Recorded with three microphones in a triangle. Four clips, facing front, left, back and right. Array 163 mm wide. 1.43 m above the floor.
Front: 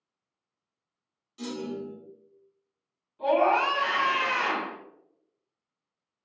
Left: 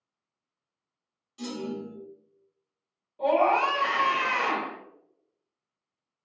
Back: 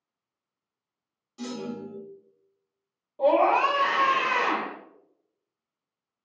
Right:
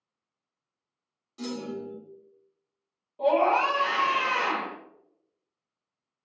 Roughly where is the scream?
Behind.